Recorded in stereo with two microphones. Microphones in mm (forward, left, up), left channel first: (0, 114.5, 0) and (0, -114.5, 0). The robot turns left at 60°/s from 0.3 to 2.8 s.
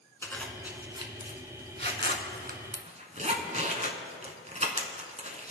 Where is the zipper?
10° left (ahead or behind), 1.3 m; by 5.5 s 30° right (ahead or behind), 1.3 m.